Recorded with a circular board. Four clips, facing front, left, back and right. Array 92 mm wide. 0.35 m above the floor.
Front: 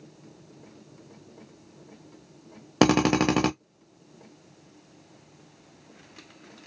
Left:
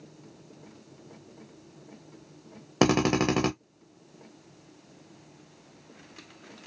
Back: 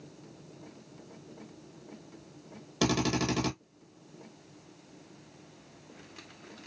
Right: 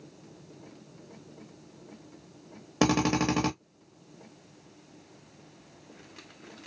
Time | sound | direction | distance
2.8 | a drill | 20° left | 0.5 m